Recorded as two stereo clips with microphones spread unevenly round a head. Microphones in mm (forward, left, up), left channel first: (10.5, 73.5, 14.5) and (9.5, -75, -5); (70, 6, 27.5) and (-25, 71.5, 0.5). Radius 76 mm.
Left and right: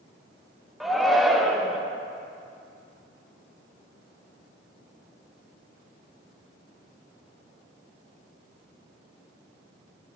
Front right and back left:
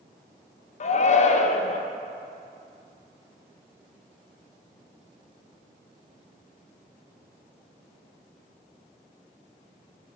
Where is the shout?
Straight ahead, 0.7 m.